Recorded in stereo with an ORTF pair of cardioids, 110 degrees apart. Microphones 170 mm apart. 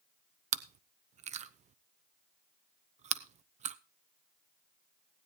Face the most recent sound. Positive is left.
turn(degrees=-40)